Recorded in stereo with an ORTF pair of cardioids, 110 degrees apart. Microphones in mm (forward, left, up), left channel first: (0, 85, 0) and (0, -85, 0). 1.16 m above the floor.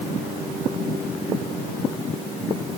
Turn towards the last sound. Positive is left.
No sound to turn to.